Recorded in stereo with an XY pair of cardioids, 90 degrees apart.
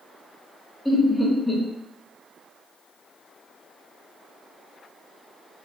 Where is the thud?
I don't hear a thud.